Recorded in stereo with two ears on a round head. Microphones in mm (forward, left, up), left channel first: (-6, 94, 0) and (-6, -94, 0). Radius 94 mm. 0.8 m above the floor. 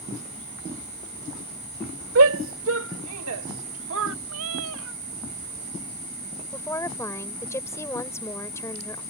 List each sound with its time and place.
2.1 s a shout: 75° right (ahead or behind); by 4.2 s 65° right (ahead or behind)
4.3 s a cat meowing: 80° right
6.5 s a woman speaking: 15° left (ahead or behind)